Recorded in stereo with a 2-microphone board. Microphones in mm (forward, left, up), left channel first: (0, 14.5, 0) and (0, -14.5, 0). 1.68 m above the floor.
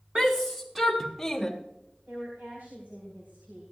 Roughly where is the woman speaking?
Right.